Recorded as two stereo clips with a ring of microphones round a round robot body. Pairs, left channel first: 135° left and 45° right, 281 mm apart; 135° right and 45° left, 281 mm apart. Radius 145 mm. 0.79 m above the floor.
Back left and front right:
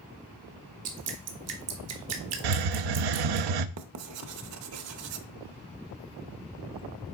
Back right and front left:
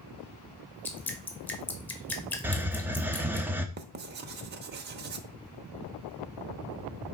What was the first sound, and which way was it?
Dripping, 50° right.